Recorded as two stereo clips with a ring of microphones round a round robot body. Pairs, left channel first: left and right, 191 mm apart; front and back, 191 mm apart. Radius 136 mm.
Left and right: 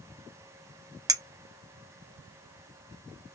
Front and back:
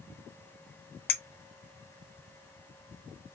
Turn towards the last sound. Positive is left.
turn(degrees=-25)